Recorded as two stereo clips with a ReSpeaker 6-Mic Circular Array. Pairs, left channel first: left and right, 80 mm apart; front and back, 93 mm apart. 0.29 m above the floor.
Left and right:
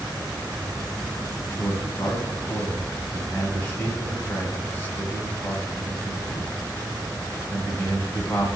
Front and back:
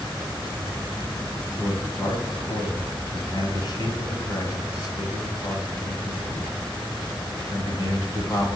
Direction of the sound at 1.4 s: 30° left.